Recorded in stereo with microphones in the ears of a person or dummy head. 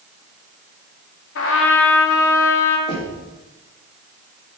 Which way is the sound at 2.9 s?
25° left (ahead or behind).